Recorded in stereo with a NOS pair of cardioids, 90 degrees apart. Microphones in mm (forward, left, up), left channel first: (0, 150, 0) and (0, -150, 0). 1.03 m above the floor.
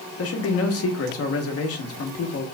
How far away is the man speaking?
About 1.2 m.